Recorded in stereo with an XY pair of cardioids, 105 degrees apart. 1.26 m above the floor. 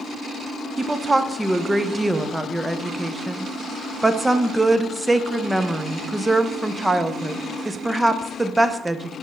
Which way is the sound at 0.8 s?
15° right.